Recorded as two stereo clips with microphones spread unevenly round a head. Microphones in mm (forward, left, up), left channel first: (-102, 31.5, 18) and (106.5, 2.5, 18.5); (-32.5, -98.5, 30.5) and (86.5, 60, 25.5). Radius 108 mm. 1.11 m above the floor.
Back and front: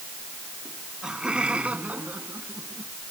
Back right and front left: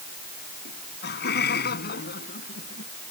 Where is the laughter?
95° right; by 2.9 s 90° right.